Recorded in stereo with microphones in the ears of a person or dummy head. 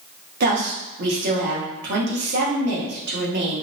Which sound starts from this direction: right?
A woman speaking, at 0.4 s.